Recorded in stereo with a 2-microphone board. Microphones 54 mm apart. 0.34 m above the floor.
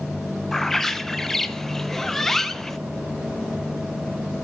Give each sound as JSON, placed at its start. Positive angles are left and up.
{"t": 0.5, "sound": "a bird", "side_deg": 10, "distance_m": 0.5}